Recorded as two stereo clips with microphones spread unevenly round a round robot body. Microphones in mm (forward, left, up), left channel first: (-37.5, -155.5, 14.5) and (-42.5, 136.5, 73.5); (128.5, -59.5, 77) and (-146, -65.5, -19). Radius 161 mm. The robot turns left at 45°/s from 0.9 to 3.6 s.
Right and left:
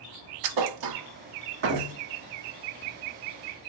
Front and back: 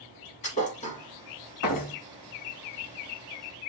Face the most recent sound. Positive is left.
turn(degrees=-50)